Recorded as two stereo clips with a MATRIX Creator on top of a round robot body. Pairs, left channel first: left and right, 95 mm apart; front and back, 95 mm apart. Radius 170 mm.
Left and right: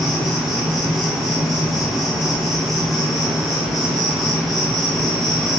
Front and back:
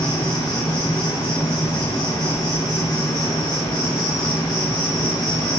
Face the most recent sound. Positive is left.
turn(degrees=0)